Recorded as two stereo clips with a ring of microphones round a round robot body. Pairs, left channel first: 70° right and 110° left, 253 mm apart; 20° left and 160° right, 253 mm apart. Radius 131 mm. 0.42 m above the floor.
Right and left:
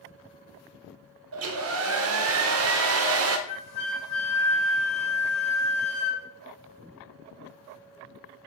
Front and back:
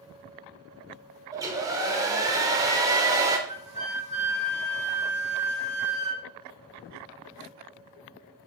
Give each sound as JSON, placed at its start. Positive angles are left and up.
{"t": 1.3, "sound": "a hair dryer", "azimuth_deg": 130, "distance_m": 0.5}
{"t": 3.5, "sound": "a flute", "azimuth_deg": -90, "distance_m": 2.5}